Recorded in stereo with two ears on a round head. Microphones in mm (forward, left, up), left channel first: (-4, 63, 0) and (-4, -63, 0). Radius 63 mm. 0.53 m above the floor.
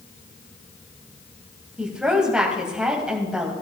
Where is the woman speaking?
5° right (ahead or behind), 3 m.